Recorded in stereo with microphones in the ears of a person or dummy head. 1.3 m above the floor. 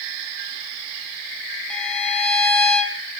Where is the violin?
5° left (ahead or behind), 1.3 m.